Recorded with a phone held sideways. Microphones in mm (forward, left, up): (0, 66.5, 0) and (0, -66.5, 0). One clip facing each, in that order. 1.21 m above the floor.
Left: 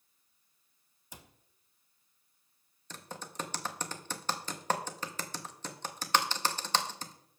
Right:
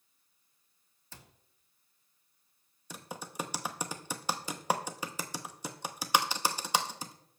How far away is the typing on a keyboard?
About 0.8 m.